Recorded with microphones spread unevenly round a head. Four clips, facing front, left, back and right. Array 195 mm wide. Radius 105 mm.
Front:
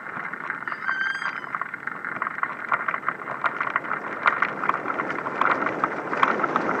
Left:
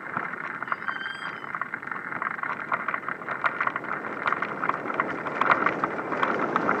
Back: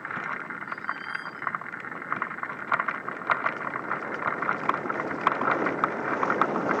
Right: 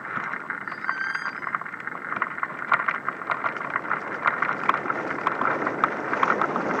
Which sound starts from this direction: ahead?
A squeak, at 0.7 s.